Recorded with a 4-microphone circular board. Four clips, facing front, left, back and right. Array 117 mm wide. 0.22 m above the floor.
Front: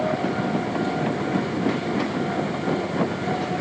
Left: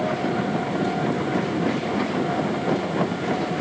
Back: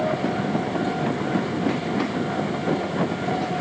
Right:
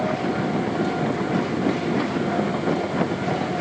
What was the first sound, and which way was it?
Only background noise.